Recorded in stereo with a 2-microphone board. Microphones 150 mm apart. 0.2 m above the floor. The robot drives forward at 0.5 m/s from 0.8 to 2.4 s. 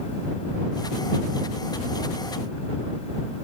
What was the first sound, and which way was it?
Only background noise.